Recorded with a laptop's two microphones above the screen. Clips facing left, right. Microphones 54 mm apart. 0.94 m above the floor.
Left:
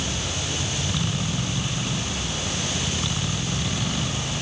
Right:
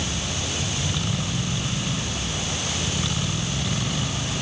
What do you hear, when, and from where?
Only background noise.